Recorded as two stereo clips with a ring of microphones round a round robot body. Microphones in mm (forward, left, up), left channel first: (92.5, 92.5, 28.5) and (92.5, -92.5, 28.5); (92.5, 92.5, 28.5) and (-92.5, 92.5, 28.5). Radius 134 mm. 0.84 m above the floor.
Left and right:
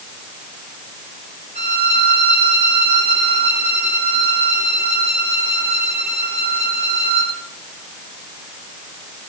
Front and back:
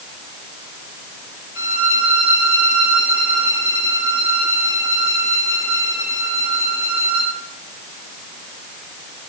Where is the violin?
35° right, 6.5 m.